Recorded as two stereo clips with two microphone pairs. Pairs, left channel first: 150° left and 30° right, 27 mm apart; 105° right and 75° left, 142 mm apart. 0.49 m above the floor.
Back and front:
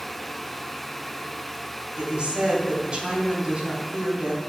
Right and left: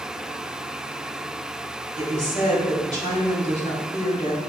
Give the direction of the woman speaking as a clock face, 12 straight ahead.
3 o'clock.